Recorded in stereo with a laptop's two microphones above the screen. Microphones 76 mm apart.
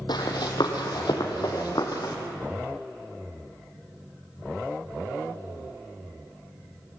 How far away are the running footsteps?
About 2.5 m.